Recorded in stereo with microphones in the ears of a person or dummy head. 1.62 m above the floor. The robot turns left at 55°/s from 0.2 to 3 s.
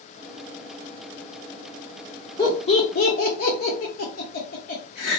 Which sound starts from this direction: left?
Laughter, at 2.4 s.